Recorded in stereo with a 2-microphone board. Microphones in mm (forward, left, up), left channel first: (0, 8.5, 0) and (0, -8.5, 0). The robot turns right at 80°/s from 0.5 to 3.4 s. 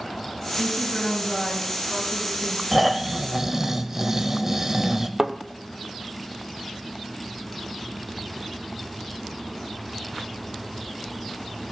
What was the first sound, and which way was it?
A woman speaking, 80° left.